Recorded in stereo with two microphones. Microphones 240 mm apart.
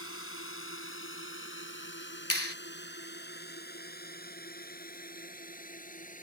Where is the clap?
70° left (ahead or behind).